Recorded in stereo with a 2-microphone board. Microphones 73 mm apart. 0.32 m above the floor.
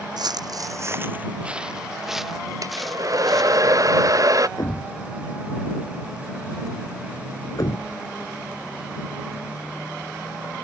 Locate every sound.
0.2 s footsteps: 70° right (ahead or behind); by 3.6 s 5° left (ahead or behind)
2.6 s a hair dryer: 50° right (ahead or behind)
4.6 s a thud: 60° left (ahead or behind)